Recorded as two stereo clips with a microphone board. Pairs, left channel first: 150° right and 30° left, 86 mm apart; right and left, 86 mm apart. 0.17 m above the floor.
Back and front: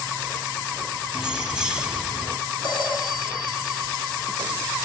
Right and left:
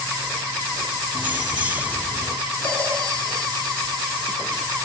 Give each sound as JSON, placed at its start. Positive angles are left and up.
{"t": 1.1, "sound": "keys jangling", "azimuth_deg": 85, "distance_m": 0.7}
{"t": 2.6, "sound": "a phone ringing", "azimuth_deg": -165, "distance_m": 6.0}